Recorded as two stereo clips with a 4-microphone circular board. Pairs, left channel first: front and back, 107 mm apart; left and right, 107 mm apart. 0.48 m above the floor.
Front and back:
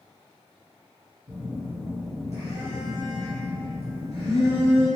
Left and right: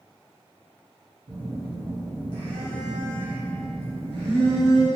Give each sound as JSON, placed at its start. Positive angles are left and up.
{"t": 1.3, "sound": "a phone buzzing", "azimuth_deg": -125, "distance_m": 1.9}